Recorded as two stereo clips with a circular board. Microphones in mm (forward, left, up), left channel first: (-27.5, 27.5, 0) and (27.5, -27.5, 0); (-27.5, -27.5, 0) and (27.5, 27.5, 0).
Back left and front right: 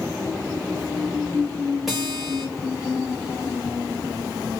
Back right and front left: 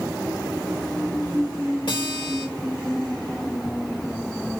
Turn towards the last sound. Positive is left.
turn(degrees=-130)